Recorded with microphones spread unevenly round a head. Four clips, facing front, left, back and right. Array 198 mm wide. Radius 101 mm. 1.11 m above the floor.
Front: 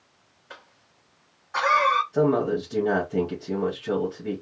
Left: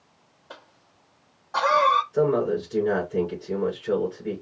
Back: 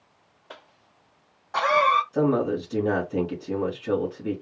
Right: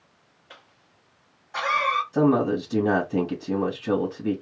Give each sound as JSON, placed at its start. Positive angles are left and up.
{"t": 0.5, "sound": "a cough", "azimuth_deg": 145, "distance_m": 0.7}
{"t": 2.1, "sound": "a man speaking", "azimuth_deg": -105, "distance_m": 2.5}